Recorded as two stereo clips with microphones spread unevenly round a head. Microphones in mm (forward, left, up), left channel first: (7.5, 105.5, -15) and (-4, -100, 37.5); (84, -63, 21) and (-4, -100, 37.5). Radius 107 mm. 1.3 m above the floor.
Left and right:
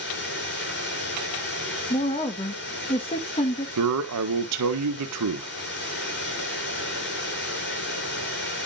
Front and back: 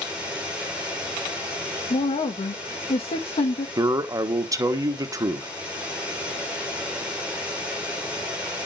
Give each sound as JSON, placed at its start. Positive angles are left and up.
{"t": 0.0, "sound": "running water", "azimuth_deg": 125, "distance_m": 8.0}
{"t": 1.9, "sound": "a woman speaking", "azimuth_deg": 20, "distance_m": 1.3}
{"t": 3.8, "sound": "a man speaking", "azimuth_deg": -100, "distance_m": 1.4}